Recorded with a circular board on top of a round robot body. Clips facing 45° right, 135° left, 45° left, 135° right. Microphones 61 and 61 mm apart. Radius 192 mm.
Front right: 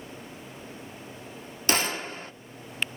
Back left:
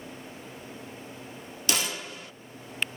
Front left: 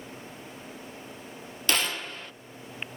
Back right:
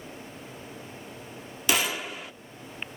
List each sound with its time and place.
1.7 s a gunshot: 60° right, 0.8 m